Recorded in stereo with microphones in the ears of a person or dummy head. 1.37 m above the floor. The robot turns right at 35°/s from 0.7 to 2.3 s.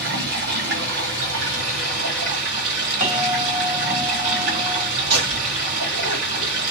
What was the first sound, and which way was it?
Running water, 120° right.